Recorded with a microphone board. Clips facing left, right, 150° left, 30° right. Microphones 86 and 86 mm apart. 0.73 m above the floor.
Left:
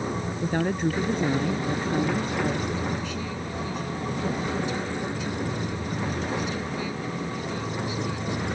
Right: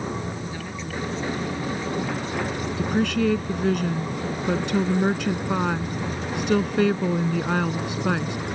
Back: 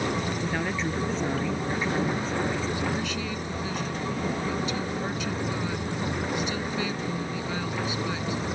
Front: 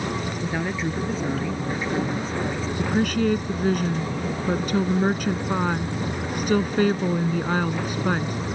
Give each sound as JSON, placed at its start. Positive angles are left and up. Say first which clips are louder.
{"t": 0.4, "sound": "a woman speaking", "louder": "left 8 dB, front 2 dB", "azimuth_deg": 50}
{"t": 2.8, "sound": "a woman speaking", "louder": "right 7 dB, front 7 dB", "azimuth_deg": -70}